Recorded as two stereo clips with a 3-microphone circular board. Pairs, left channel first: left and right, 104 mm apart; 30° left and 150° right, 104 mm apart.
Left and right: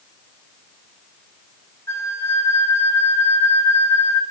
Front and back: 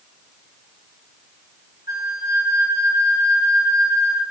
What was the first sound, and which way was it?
A flute, 155° left.